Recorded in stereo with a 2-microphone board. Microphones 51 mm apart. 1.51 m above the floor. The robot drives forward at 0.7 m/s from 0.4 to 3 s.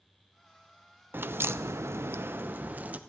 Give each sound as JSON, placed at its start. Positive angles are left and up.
{"t": 1.1, "sound": "a crack", "side_deg": -45, "distance_m": 0.8}